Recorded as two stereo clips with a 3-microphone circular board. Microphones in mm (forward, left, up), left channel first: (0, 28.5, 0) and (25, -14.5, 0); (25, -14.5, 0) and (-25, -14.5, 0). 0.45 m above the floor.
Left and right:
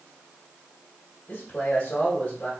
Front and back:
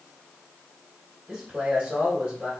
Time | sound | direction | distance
1.3 | a man speaking | 135° left | 1.3 m